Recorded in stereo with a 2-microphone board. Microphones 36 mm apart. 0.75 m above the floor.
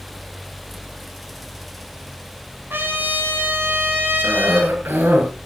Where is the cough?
80° right, 6 m.